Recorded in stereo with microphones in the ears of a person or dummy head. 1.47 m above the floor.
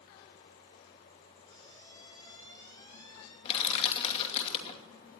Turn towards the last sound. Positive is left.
turn(degrees=30)  # may be behind; listen again after turning